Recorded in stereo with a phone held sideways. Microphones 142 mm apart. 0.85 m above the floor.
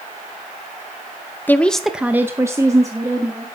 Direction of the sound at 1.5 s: 15° left (ahead or behind).